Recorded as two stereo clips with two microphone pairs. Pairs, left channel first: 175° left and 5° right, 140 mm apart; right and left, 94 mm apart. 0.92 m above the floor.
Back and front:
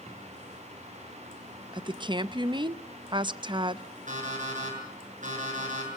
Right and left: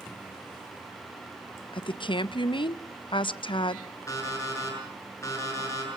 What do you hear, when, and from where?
1.7 s a woman speaking: 65° right, 0.5 m
4.1 s an alarm clock: 30° right, 7.5 m